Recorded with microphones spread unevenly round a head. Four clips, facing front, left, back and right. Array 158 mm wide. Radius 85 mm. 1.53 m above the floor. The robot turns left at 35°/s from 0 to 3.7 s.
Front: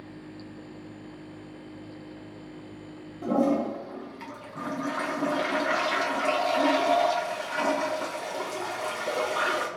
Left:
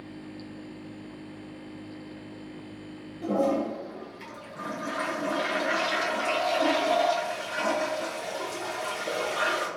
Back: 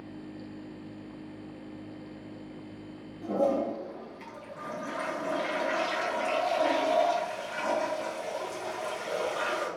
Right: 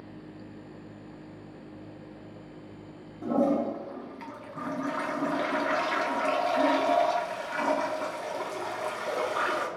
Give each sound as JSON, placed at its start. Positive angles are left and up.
{"t": 3.2, "sound": "a toilet flushing", "azimuth_deg": -5, "distance_m": 4.5}